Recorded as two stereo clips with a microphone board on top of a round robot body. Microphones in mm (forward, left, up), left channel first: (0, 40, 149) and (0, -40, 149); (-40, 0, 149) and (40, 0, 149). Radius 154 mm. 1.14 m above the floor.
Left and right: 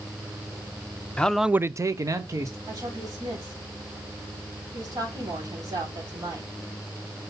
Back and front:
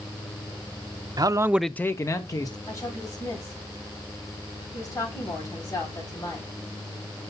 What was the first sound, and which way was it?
A man speaking, 15° left.